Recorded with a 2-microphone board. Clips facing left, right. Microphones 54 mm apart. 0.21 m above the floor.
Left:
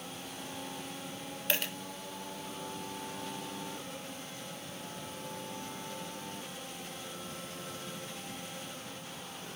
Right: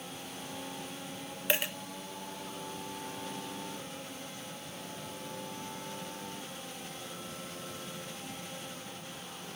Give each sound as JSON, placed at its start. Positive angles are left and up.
{"t": 1.5, "sound": "a dropped coin", "side_deg": -15, "distance_m": 0.7}